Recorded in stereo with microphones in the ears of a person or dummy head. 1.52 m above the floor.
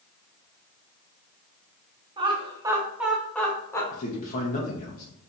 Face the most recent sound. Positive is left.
turn(degrees=45)  # may be behind; listen again after turning